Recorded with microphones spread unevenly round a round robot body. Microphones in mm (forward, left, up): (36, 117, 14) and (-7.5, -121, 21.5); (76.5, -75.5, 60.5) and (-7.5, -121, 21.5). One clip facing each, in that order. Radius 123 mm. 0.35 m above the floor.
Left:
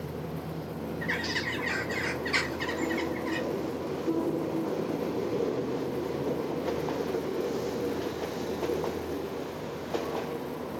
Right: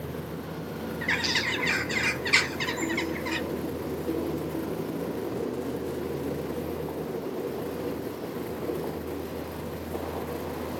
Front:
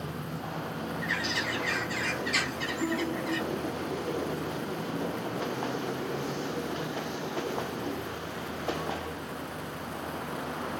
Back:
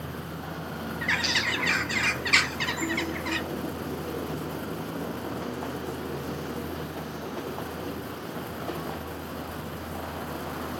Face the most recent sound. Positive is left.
turn(degrees=-140)